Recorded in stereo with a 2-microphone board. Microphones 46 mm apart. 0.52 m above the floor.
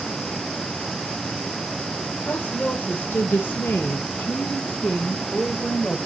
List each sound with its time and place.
2.2 s a woman speaking: 35° left (ahead or behind), 1.9 m; by 6.0 s 15° left (ahead or behind), 1.9 m